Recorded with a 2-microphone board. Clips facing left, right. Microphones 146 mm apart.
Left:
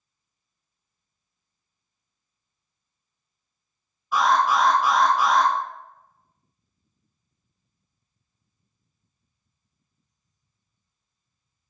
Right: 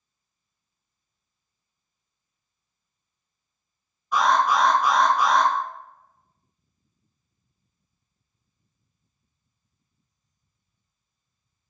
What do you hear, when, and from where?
4.1 s an alarm: 5° left (ahead or behind), 1.8 m